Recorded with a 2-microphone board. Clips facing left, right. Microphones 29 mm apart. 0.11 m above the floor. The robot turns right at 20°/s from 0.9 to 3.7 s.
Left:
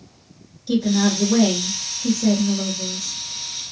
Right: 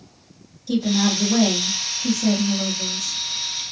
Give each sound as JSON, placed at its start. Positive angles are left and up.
{"t": 0.7, "sound": "a woman speaking", "azimuth_deg": 65, "distance_m": 1.4}